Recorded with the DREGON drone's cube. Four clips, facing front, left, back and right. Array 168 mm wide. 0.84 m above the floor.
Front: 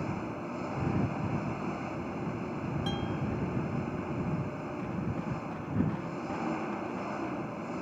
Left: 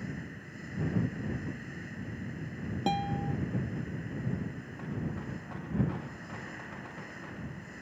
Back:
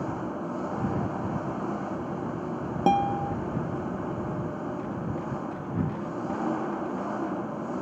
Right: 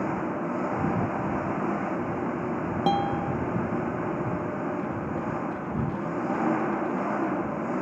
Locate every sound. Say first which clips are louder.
0.0 s an engine running: right 14 dB, back 4 dB; 110° right
2.9 s a guitar: right 6 dB, back 15 dB; 155° right